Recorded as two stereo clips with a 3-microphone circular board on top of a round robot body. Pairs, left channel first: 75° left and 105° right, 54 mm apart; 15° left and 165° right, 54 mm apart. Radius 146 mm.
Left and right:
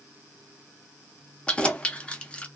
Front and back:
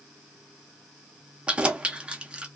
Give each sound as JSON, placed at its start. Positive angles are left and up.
{"t": 1.5, "sound": "keys jangling", "azimuth_deg": 135, "distance_m": 0.7}